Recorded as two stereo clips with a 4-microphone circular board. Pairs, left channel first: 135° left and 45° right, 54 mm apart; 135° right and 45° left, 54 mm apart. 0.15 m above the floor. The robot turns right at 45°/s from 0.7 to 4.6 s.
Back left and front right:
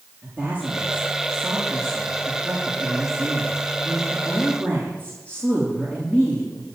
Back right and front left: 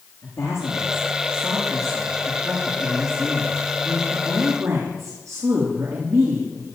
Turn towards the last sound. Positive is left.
turn(degrees=65)